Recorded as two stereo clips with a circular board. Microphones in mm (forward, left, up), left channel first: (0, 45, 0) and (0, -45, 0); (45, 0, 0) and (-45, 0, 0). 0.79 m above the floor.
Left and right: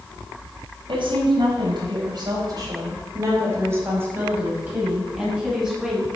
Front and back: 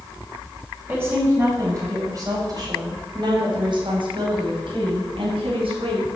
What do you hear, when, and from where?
0.9 s a woman speaking: 115° right, 4.5 m; by 6.0 s 175° right, 5.5 m